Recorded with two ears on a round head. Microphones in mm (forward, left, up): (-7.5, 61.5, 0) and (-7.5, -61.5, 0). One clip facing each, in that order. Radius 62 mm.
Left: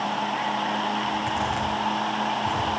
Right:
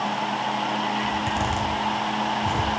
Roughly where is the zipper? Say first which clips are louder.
Right 1 dB; right.